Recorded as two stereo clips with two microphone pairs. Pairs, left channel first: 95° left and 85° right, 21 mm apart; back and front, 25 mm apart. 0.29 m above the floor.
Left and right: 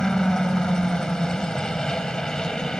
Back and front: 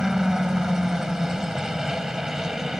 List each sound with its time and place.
0.0 s a helicopter: 60° left